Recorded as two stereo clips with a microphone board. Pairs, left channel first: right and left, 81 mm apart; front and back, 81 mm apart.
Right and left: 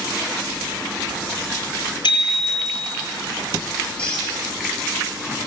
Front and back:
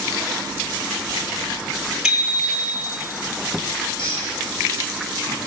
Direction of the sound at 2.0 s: 100° right.